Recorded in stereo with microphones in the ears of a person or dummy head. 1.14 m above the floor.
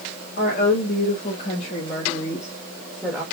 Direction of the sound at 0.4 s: 60° left (ahead or behind).